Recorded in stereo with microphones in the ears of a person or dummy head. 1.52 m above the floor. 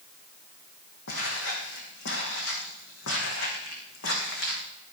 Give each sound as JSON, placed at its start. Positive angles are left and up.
{"t": 1.1, "sound": "footsteps", "side_deg": 65, "distance_m": 3.5}